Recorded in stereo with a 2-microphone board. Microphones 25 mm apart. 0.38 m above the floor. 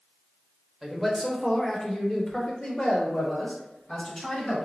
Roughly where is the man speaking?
Centre.